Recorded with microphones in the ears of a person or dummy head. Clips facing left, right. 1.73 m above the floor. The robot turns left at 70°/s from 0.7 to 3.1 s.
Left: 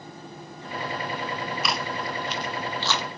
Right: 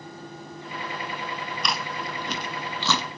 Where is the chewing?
5° left (ahead or behind), 2.5 m; by 3.1 s 85° right, 2.5 m.